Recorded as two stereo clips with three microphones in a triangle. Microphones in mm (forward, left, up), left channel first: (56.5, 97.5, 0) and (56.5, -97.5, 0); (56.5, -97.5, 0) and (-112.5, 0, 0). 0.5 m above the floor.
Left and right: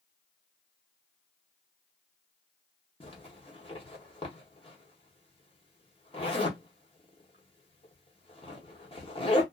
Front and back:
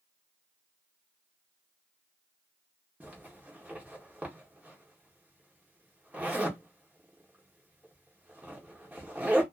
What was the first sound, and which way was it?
A zipper, 75° left.